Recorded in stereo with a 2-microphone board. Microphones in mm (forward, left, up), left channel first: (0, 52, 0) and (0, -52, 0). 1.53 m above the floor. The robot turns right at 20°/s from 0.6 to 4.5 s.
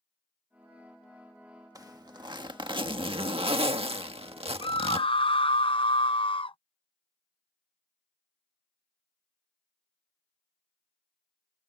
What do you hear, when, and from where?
1.8 s a zipper: 140° right; by 5.1 s 85° right
4.6 s a scream: 60° left (ahead or behind)